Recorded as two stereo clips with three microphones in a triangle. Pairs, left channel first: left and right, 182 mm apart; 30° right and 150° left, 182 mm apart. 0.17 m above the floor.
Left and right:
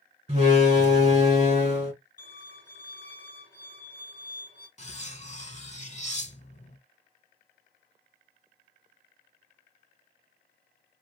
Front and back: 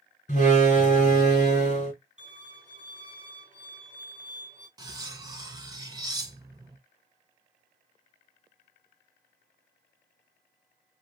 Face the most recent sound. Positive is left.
turn(degrees=95)